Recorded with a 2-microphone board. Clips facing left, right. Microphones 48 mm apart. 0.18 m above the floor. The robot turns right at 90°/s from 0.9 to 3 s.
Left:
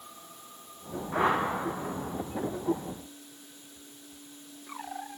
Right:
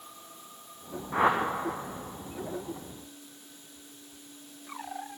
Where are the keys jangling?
I don't hear keys jangling.